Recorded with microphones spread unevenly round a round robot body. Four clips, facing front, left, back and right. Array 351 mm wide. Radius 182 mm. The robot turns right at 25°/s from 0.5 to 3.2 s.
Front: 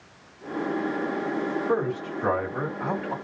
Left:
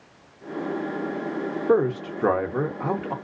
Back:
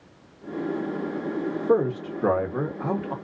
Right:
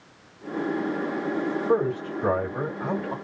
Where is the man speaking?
105° left, 1.1 m; by 3.1 s 140° left, 1.1 m.